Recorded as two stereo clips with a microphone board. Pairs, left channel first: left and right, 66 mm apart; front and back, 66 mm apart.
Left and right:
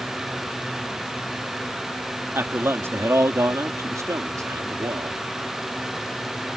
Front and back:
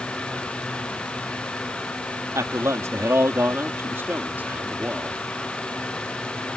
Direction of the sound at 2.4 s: 145° right.